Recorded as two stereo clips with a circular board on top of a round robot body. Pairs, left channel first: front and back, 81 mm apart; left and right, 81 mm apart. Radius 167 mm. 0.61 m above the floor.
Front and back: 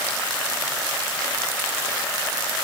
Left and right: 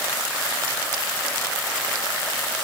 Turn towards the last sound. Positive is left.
No sound to turn to.